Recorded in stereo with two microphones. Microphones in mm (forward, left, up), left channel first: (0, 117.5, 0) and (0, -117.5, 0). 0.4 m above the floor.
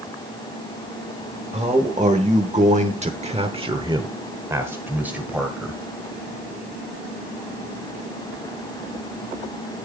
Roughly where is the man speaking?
Right.